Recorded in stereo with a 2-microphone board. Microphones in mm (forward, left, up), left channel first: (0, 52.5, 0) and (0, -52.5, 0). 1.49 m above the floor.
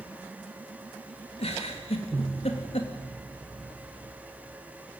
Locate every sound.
1.4 s a giggle: 75° left (ahead or behind), 3 m